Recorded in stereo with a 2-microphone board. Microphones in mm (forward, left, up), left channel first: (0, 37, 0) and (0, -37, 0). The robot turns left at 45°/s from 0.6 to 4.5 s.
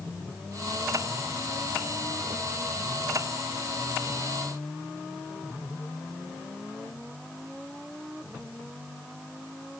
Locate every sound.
Only background noise.